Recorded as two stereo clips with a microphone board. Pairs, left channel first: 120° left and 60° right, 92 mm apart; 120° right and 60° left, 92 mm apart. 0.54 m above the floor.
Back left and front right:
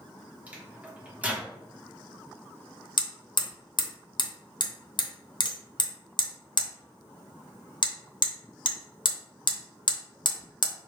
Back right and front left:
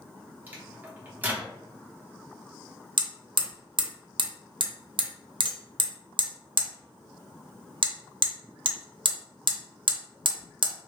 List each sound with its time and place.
0.5 s a microwave: 5° left, 1.1 m
3.0 s hammering: 90° left, 0.7 m